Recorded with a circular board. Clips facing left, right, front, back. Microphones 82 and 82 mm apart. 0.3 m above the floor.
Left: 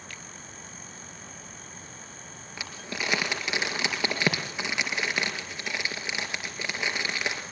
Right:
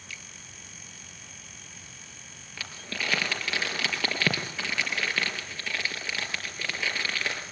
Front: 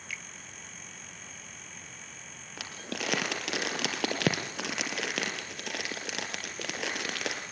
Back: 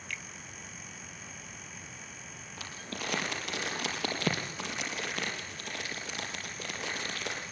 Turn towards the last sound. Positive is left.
turn(degrees=20)